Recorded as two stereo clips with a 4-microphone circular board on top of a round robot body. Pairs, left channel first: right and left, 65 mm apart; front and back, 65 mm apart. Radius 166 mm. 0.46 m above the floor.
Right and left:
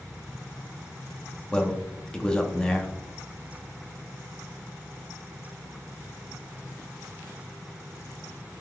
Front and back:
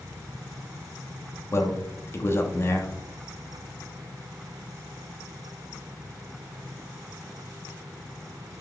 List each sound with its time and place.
1.5 s a man speaking: 20° right, 0.8 m